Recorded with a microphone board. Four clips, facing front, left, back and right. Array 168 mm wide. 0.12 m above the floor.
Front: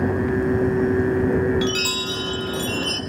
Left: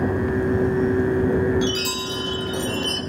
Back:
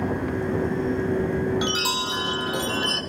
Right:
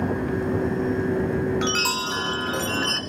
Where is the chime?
120° right, 3 m.